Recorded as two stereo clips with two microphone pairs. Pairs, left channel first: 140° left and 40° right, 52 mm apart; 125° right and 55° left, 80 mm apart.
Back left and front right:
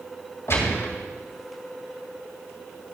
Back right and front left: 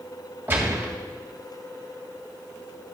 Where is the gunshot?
115° left, 2.5 m.